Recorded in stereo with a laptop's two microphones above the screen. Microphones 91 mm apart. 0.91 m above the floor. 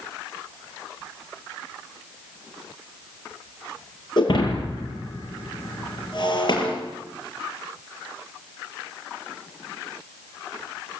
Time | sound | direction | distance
4.2 | breaking glass | 50° left (ahead or behind) | 9 m